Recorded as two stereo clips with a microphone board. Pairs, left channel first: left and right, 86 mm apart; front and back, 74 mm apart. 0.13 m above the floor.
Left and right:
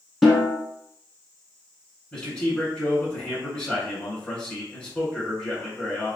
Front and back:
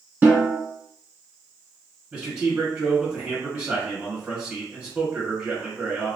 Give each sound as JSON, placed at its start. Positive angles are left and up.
{"t": 0.2, "sound": "a snare drum", "azimuth_deg": 180, "distance_m": 1.2}
{"t": 2.1, "sound": "a man speaking", "azimuth_deg": 130, "distance_m": 1.4}